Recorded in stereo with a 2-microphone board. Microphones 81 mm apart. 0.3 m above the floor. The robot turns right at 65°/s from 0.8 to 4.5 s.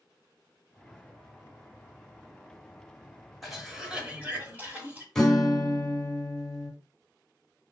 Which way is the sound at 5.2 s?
5° left (ahead or behind).